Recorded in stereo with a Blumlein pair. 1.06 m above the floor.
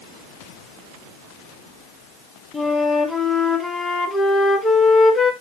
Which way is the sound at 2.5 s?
15° left.